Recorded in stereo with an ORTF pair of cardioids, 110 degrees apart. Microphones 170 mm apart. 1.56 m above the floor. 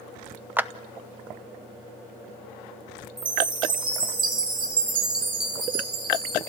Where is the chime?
30° right, 4 m.